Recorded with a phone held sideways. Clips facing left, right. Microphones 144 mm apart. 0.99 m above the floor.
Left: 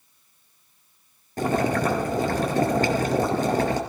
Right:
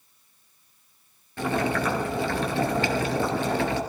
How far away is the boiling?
About 3 m.